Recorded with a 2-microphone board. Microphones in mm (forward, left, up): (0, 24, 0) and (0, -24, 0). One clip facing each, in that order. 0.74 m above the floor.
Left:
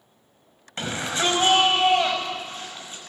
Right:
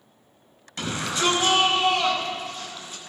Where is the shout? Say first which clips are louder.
Even; 40° left (ahead or behind), 5 m.